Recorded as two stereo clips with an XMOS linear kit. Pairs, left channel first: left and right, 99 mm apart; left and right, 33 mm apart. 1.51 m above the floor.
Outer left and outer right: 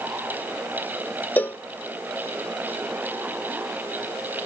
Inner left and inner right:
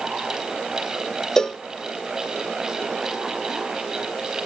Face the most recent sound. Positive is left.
turn(degrees=20)  # may be behind; listen again after turning